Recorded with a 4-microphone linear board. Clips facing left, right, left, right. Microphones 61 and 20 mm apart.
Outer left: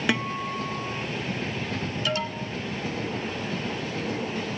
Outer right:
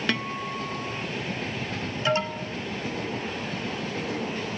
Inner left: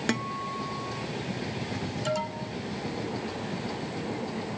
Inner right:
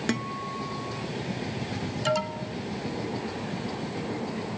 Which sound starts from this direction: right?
An alarm, at 2.0 s.